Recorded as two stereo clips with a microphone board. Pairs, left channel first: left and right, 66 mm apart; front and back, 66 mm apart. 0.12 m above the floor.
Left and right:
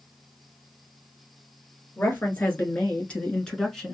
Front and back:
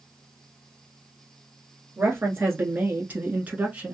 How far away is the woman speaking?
About 1.9 m.